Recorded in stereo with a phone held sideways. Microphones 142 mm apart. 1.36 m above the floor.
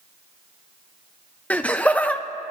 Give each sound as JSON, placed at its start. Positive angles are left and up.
{"t": 1.5, "sound": "laughter", "side_deg": 10, "distance_m": 0.5}